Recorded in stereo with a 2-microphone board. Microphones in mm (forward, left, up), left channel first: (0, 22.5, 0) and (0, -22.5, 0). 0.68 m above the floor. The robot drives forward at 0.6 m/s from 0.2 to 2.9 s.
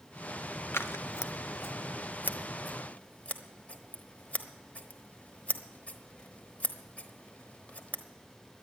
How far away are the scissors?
About 0.7 m.